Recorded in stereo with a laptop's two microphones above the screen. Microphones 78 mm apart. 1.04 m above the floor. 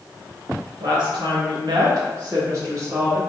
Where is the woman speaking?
70° right (ahead or behind), 1.2 m; by 3.2 s 35° right (ahead or behind), 1.6 m.